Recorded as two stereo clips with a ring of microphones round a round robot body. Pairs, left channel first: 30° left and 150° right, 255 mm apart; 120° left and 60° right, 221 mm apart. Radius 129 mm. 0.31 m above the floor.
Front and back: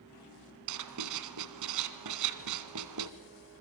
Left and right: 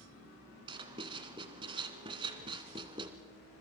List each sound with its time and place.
0.7 s writing: 130° right, 1.3 m